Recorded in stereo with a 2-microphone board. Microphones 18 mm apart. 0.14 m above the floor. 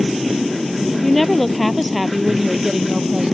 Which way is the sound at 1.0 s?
15° left (ahead or behind).